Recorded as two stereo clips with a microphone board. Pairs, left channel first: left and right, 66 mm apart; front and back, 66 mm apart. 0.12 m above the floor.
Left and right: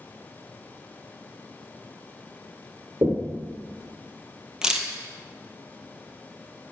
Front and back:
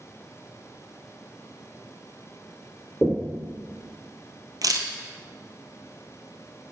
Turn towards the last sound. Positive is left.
turn(degrees=-170)